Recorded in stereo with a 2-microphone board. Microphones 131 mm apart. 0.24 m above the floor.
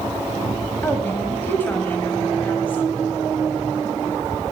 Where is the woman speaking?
15° left (ahead or behind), 1.0 m.